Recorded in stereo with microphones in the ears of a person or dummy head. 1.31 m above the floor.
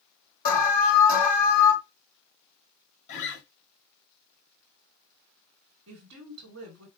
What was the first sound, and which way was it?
An alarm, 50° left (ahead or behind).